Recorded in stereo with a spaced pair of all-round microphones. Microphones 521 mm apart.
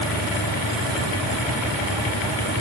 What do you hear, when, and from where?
Only background noise.